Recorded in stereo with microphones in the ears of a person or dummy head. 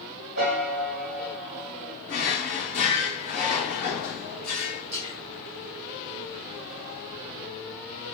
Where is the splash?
35° right (ahead or behind), 1.0 m.